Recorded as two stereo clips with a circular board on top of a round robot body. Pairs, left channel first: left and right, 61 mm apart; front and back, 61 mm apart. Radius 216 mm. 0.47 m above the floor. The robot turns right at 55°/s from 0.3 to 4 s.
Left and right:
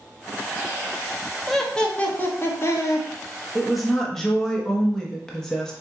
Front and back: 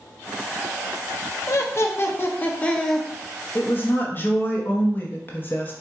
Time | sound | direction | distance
1.5 | laughter | straight ahead | 1.2 m
3.5 | a woman speaking | 10° right | 1.3 m